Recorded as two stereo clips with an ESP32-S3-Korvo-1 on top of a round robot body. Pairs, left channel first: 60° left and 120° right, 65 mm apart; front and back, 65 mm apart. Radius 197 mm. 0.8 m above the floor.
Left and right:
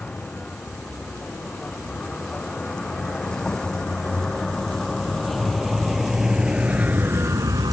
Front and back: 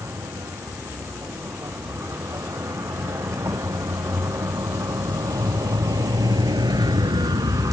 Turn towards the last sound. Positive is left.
turn(degrees=-140)